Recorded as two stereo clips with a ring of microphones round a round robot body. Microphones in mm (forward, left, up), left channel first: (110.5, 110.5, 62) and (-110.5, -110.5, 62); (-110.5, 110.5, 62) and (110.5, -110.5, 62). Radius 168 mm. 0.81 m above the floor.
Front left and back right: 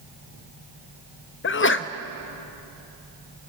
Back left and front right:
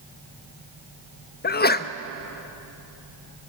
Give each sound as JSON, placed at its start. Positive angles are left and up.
{"t": 1.4, "sound": "a sneeze", "azimuth_deg": 85, "distance_m": 1.1}